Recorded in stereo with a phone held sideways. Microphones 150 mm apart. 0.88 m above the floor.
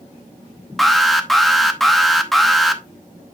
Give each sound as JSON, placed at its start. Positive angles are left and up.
{"t": 0.8, "sound": "an alarm", "side_deg": 0, "distance_m": 0.8}